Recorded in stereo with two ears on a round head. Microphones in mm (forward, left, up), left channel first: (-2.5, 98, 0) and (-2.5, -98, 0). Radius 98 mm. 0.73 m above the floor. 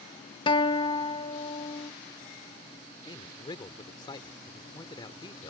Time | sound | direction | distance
0.5 | a guitar | 20° left (ahead or behind) | ?
3.0 | a man speaking | 20° left (ahead or behind) | ?